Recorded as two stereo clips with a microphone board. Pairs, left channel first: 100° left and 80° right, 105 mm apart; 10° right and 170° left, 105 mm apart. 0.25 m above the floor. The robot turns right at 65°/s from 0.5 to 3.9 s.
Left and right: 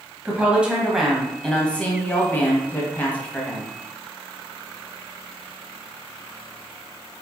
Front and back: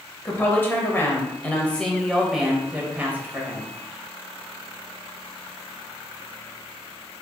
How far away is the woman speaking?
About 1.0 m.